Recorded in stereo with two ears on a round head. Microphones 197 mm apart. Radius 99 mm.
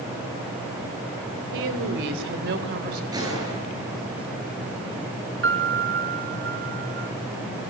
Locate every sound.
1.5 s a woman speaking: 65° right (ahead or behind), 3 m; by 3.0 s 45° right (ahead or behind), 4 m
3.1 s a gunshot: 20° right (ahead or behind), 9.5 m
5.4 s a piano: 55° right (ahead or behind), 1.7 m